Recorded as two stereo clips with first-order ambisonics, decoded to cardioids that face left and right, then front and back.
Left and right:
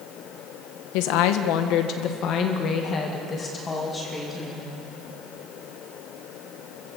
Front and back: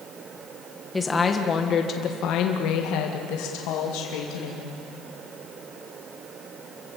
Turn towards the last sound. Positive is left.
turn(degrees=5)